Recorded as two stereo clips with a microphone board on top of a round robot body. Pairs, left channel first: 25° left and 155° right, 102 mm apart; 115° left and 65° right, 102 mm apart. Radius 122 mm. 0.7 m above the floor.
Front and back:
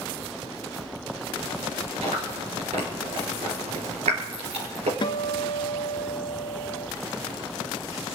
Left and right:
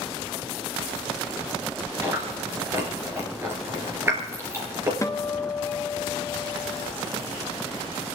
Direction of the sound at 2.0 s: 135° right.